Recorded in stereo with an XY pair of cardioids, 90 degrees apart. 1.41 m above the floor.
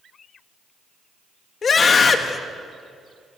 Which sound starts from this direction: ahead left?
A scream, at 1.6 s.